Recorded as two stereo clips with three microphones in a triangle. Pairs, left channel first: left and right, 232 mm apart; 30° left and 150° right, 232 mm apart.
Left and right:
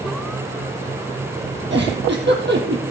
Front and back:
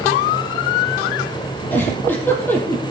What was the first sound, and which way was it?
A giggle, 50° right.